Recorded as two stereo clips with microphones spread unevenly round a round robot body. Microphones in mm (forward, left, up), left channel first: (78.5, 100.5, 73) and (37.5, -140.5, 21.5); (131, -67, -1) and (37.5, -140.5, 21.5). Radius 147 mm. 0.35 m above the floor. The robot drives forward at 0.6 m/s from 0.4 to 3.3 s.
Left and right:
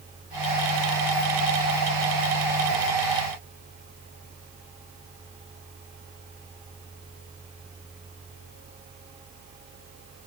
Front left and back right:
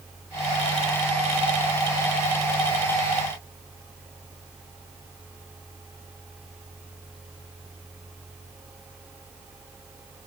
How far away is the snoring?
No snoring in this recording.